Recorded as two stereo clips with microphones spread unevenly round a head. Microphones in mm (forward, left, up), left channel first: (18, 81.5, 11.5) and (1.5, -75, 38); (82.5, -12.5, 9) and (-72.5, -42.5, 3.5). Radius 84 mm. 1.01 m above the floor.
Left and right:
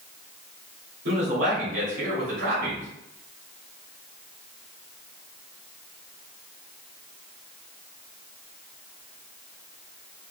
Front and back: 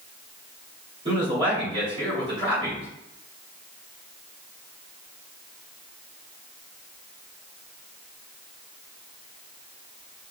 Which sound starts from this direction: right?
A man speaking, at 1.1 s.